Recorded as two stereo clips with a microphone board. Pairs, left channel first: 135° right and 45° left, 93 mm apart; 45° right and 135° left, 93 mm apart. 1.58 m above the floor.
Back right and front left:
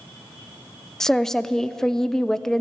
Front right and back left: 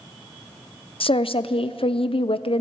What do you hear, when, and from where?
1.0 s a woman speaking: 50° right, 0.6 m